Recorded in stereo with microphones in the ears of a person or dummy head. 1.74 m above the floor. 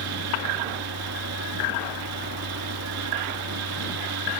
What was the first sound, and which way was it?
A fan, 85° right.